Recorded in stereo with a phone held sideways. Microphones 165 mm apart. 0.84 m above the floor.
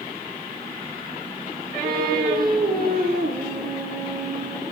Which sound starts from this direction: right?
Singing, at 1.8 s.